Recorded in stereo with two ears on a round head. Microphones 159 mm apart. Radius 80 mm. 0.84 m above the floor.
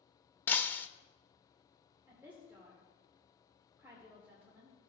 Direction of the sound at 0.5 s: 10° left (ahead or behind).